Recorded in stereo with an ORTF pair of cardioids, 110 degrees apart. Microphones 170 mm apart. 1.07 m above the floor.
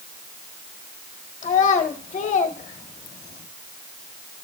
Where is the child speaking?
45° left, 1.6 m.